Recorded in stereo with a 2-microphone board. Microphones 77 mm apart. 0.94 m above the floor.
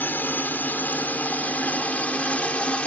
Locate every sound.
0.0 s a drone: 25° left (ahead or behind); by 2.9 s 15° left (ahead or behind)